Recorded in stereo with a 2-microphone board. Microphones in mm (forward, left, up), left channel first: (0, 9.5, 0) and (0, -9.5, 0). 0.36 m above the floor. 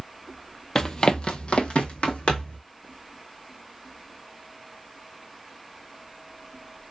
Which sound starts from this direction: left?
Running footsteps, at 0.8 s.